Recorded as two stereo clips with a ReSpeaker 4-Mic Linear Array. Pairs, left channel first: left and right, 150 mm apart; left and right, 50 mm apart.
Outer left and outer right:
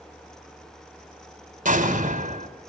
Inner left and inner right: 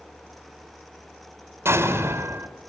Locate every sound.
1.6 s an explosion: 65° right (ahead or behind), 4 m